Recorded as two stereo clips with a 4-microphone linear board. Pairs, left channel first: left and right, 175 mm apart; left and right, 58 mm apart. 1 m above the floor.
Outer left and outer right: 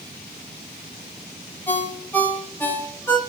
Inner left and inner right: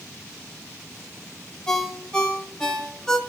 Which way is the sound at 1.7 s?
10° left (ahead or behind).